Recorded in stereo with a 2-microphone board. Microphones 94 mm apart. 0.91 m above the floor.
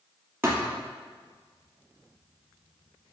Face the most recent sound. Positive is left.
turn(degrees=-25)  # may be behind; listen again after turning